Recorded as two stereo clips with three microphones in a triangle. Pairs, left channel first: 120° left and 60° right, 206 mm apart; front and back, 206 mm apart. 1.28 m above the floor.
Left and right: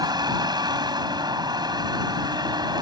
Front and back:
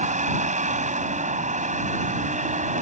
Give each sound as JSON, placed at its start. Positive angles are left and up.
{"t": 0.0, "sound": "a vehicle", "azimuth_deg": -130}